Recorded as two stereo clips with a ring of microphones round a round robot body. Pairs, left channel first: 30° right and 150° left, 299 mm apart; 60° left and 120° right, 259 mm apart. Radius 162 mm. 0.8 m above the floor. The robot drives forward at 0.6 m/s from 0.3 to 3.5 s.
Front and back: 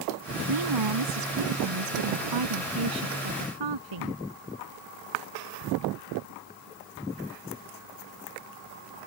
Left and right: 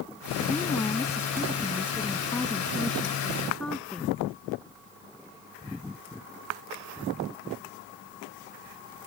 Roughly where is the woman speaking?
Behind left.